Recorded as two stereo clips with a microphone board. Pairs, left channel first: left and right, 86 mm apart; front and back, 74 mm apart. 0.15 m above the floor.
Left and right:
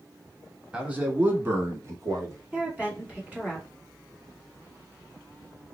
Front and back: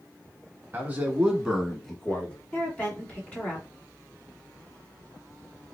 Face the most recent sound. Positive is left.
turn(degrees=-45)